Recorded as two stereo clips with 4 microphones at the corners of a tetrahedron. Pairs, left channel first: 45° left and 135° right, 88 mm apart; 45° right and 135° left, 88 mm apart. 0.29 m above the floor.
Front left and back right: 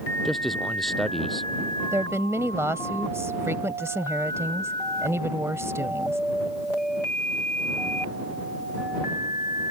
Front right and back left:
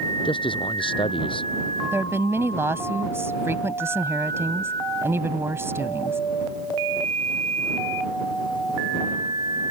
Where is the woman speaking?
Straight behind.